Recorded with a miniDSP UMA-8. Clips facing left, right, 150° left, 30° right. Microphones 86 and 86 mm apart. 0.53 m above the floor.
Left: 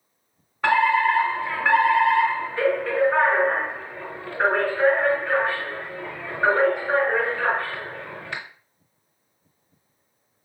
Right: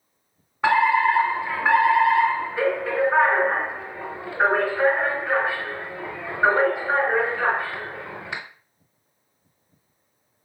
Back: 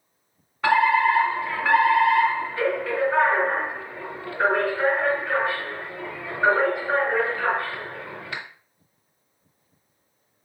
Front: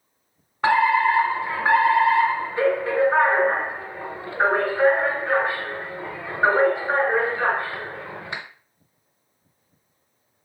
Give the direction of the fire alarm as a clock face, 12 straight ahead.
1 o'clock.